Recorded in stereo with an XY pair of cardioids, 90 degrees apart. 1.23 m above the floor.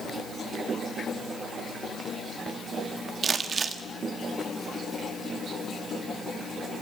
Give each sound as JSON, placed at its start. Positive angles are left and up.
{"t": 3.2, "sound": "crumpling", "azimuth_deg": -50, "distance_m": 1.7}